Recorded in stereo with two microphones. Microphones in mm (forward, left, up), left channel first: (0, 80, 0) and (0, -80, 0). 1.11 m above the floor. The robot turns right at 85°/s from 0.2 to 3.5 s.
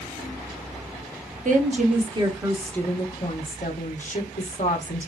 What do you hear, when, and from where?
1.4 s a woman speaking: 100° right, 0.9 m; by 5.1 s 75° left, 0.9 m